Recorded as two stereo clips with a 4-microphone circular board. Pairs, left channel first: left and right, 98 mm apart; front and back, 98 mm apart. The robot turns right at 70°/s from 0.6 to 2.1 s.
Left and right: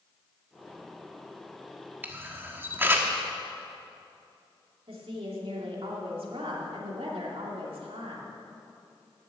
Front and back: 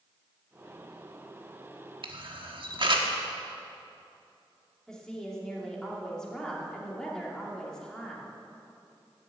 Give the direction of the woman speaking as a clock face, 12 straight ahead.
3 o'clock.